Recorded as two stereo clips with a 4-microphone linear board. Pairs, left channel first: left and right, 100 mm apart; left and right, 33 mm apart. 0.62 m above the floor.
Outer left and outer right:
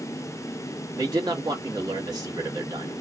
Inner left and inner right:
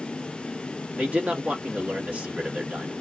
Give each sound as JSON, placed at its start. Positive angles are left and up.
{"t": 1.0, "sound": "a man speaking", "side_deg": -45, "distance_m": 1.3}